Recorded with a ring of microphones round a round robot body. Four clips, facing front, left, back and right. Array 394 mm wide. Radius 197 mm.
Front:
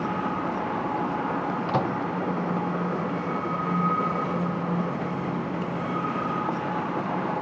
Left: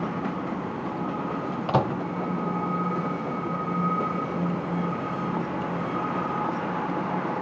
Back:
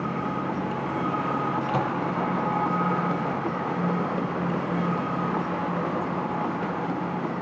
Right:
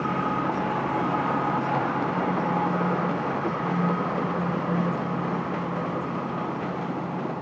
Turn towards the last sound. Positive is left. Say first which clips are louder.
# left 1 dB, even
turn(degrees=85)